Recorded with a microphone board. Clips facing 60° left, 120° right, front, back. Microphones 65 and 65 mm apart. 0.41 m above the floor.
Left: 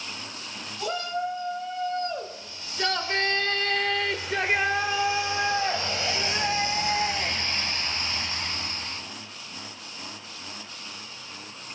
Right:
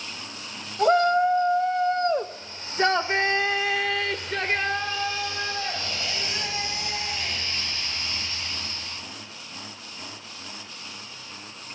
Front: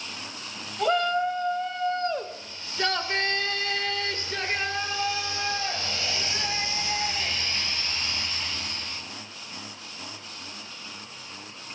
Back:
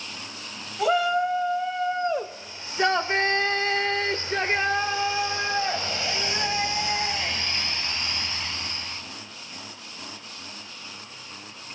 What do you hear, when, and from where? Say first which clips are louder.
0.8 s a shout: right 11 dB, back 2 dB; 100° right, 1.9 m; by 9.0 s 110° left, 3.5 m